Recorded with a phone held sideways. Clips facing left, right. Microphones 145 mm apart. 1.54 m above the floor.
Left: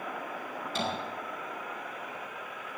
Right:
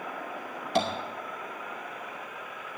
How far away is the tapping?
About 2.5 m.